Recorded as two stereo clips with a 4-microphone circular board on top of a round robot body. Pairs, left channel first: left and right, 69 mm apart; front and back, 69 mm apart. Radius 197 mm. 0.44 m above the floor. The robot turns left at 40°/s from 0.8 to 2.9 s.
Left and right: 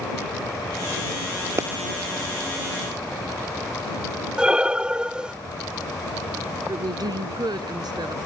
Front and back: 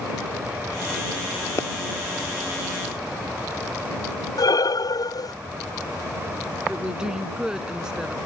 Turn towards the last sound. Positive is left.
turn(degrees=-100)